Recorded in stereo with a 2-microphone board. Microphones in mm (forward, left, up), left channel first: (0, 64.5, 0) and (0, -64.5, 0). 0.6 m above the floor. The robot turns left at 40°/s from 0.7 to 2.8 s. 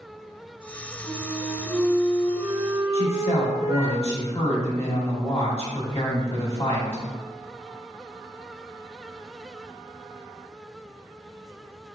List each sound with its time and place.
1.0 s a flute: 70° right, 1.6 m; by 3.9 s 140° right, 1.6 m
2.9 s a woman speaking: 50° left (ahead or behind), 1.4 m